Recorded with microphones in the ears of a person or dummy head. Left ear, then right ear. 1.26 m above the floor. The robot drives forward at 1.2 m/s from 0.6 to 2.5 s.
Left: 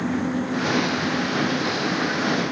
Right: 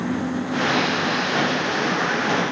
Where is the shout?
No shout in this recording.